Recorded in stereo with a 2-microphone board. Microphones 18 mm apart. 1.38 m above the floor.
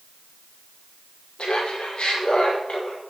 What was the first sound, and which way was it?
Laughter, 75° left (ahead or behind).